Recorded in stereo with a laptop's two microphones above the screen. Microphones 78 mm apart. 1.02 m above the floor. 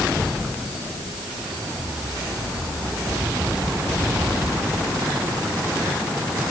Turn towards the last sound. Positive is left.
No sound to turn to.